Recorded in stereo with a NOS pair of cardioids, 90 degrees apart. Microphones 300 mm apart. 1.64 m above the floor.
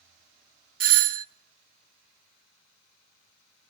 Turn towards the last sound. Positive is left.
turn(degrees=-50)